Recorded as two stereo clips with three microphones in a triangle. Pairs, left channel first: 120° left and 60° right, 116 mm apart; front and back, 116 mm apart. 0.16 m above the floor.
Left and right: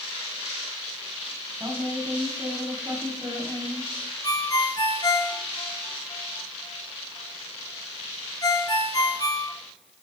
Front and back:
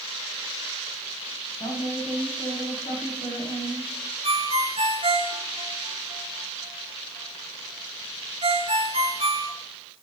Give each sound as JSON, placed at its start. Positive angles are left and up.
{"t": 1.6, "sound": "a woman speaking", "azimuth_deg": 0, "distance_m": 5.0}
{"t": 4.2, "sound": "a ringtone", "azimuth_deg": 170, "distance_m": 1.6}